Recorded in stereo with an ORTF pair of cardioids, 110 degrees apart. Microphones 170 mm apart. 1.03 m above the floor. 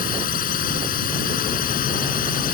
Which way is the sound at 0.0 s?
55° left.